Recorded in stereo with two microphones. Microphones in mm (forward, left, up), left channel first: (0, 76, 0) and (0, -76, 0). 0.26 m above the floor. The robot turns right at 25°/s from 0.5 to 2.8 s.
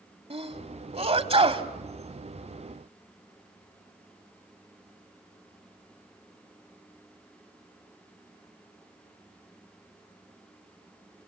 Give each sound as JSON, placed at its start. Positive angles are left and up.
{"t": 0.3, "sound": "a sneeze", "side_deg": -40, "distance_m": 1.4}